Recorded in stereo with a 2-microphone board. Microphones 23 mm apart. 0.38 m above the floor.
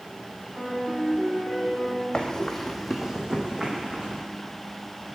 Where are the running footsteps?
35° left (ahead or behind), 1.1 m; by 4.2 s 45° right (ahead or behind), 2 m.